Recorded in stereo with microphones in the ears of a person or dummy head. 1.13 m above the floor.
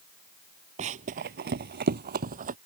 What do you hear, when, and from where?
0.8 s running footsteps: 35° right (ahead or behind); by 2.5 s 40° right (ahead or behind)